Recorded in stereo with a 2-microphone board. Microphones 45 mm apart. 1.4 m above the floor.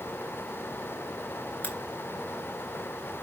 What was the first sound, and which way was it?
A crack, 40° left (ahead or behind).